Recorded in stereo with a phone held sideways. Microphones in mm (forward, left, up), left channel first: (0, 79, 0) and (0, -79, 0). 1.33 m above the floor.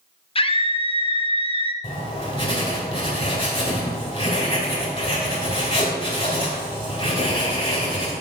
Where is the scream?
35° left (ahead or behind), 0.5 m.